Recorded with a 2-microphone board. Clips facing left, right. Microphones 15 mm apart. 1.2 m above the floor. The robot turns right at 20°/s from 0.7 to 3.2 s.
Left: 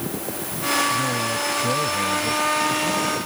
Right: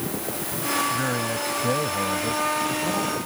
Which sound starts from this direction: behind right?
A man speaking, at 0.9 s.